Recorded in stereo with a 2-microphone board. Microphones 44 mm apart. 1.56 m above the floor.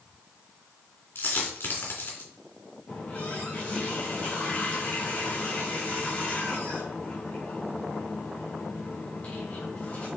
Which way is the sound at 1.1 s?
45° left (ahead or behind).